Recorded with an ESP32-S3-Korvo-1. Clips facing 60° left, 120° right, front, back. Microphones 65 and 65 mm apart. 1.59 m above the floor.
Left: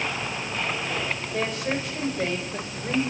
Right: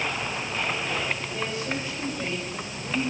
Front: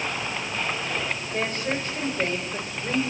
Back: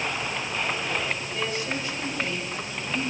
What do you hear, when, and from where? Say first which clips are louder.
1.3 s a woman speaking: left 3 dB, front 5 dB; 45° left, 7 m; by 3.0 s 35° left, 5.5 m